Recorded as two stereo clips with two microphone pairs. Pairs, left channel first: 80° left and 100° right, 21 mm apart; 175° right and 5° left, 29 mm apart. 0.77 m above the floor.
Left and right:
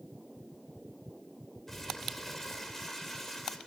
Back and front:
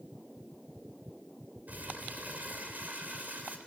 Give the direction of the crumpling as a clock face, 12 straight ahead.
12 o'clock.